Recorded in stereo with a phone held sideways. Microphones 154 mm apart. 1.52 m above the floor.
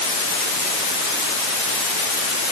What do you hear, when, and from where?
Only background noise.